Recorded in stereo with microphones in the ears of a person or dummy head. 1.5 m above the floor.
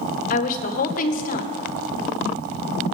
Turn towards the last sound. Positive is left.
turn(degrees=50)  # may be behind; listen again after turning